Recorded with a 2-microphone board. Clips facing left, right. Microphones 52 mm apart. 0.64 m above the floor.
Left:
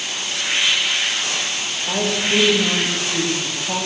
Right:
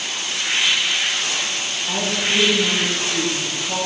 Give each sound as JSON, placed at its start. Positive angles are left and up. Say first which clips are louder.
{"t": 1.9, "sound": "a woman speaking", "louder": "left 2 dB", "side_deg": 25, "distance_m": 2.5}